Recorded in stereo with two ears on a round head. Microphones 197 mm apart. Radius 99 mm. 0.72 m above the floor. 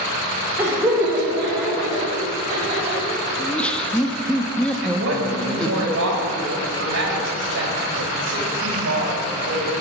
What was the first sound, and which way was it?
Laughter, 10° right (ahead or behind).